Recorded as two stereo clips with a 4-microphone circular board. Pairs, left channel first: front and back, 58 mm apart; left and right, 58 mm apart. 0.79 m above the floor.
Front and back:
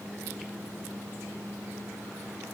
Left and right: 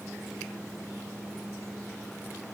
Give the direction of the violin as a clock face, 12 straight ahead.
I don't hear a violin.